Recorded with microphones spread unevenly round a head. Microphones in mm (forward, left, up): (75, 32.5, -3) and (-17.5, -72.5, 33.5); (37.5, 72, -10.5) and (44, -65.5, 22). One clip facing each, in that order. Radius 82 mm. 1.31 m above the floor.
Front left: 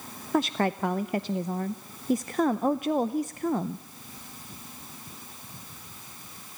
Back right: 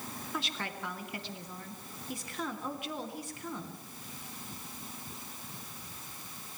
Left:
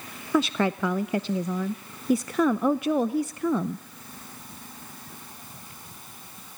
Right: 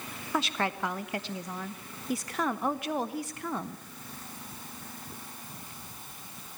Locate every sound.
0.3 s a woman speaking: 110° left, 0.5 m